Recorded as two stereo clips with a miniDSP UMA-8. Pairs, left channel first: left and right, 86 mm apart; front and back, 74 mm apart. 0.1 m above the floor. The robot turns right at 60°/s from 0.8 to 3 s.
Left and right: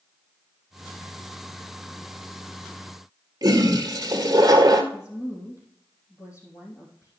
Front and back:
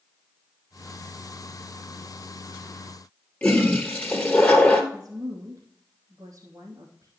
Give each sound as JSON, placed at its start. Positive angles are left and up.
{"t": 3.4, "sound": "a toilet flushing", "azimuth_deg": -65, "distance_m": 1.4}
{"t": 4.9, "sound": "a woman speaking", "azimuth_deg": 135, "distance_m": 3.0}